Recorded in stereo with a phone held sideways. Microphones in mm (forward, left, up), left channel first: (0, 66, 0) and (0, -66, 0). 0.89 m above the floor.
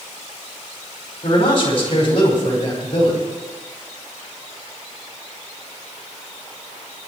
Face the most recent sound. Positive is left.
turn(degrees=40)  # may be behind; listen again after turning